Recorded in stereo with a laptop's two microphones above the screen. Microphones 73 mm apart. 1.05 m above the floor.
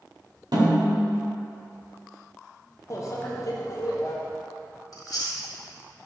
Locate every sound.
0.5 s a snare drum: 80° right, 2 m
2.9 s a microwave: 45° left (ahead or behind), 0.6 m
4.9 s chewing: 55° left (ahead or behind), 1.2 m